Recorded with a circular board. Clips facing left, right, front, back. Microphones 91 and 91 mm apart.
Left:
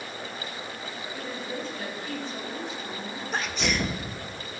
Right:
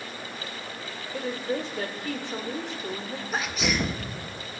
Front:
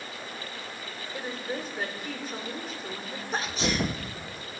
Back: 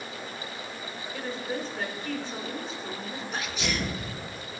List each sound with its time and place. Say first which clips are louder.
1.1 s a woman speaking: right 7 dB, back 1 dB; 80° right, 2.0 m
3.3 s a sneeze: right 1 dB, front 4 dB; 5° right, 1.1 m